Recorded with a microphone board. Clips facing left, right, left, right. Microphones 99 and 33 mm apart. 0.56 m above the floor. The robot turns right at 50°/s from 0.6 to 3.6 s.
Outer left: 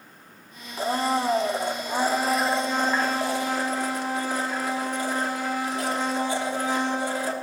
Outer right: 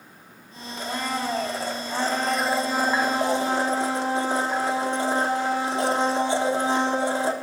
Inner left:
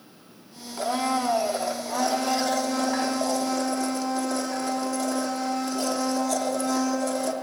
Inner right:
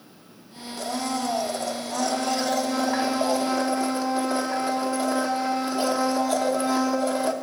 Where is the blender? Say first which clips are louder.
Outer left 4 dB, inner left 3 dB; 95° left, 1.0 m; by 7.3 s 125° right, 1.0 m.